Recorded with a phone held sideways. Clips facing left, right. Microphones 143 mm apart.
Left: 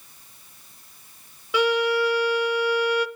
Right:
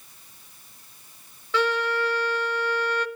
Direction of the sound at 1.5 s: 15° left (ahead or behind).